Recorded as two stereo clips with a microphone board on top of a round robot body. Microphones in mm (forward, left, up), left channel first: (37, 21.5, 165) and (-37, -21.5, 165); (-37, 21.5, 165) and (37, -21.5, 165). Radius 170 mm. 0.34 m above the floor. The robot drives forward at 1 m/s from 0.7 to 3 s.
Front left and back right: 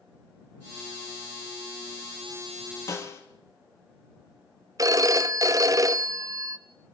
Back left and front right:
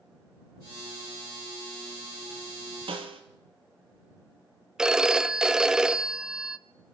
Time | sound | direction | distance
2.9 | a snare drum | 25° right | 2 m
4.8 | a phone ringing | 110° right | 0.9 m